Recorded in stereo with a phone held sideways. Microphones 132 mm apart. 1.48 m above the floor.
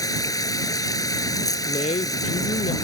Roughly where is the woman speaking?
Left.